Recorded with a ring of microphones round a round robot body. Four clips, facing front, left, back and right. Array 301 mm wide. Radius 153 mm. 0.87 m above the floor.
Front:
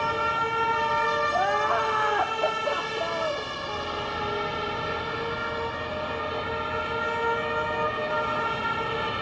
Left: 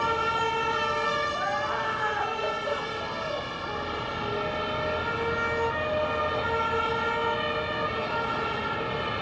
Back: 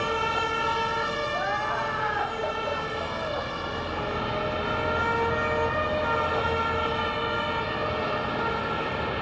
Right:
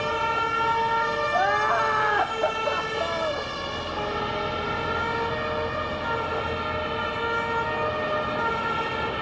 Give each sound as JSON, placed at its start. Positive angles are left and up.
{"t": 1.3, "sound": "crying", "azimuth_deg": -50, "distance_m": 0.8}